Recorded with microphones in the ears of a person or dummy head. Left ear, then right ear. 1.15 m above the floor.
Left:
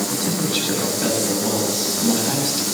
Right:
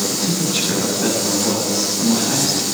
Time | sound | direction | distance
0.1 | a man speaking | 20° left (ahead or behind) | 7 m